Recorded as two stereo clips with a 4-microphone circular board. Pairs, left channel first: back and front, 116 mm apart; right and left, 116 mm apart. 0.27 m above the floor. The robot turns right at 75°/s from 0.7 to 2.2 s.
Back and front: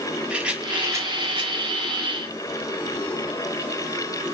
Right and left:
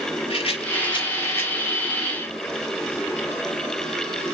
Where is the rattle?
80° right, 1.1 m; by 1.5 s 15° right, 1.1 m.